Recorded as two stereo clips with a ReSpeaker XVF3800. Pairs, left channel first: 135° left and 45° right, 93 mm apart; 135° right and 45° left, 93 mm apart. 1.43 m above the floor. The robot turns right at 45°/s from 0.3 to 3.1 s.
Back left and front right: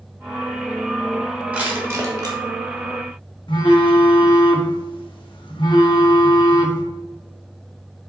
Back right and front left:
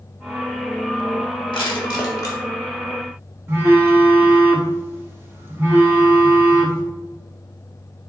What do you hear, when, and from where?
1.5 s crushing: 120° right, 1.0 m; by 2.4 s 80° right, 1.0 m
3.5 s a phone buzzing: 110° left, 0.8 m